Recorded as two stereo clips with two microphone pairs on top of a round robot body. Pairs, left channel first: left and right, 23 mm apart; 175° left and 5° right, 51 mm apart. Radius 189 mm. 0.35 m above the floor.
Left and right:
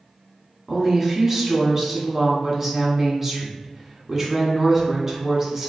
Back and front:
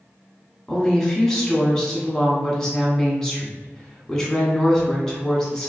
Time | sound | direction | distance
0.7 | a woman speaking | 125° right | 1.4 m